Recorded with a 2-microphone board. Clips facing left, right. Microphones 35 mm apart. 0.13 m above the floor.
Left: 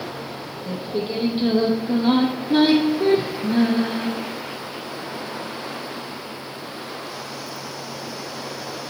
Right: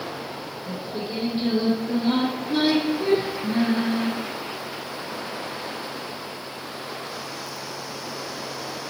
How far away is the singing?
About 1.2 m.